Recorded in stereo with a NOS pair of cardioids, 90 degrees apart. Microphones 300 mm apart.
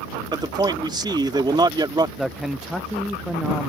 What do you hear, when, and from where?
0.3 s a man speaking: 15° right
2.2 s a man speaking: straight ahead